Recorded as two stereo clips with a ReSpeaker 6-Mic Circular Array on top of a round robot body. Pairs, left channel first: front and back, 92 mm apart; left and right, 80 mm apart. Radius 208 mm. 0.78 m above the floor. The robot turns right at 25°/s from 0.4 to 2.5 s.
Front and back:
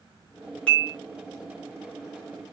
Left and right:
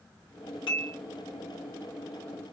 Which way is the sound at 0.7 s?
75° left.